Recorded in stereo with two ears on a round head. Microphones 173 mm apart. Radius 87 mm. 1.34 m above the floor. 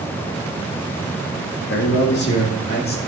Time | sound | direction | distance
1.7 | a man speaking | 65° left (ahead or behind) | 2.0 m